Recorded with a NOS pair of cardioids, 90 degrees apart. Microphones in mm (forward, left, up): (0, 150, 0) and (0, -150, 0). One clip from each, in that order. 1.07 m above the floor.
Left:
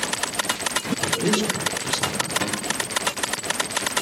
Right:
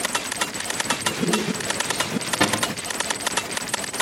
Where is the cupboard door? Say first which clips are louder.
Right 4 dB; 40° right, 1.6 m.